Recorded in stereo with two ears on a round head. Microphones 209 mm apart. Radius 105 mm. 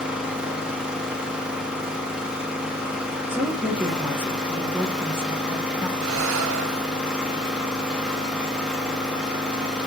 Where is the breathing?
60° right (ahead or behind), 0.5 m.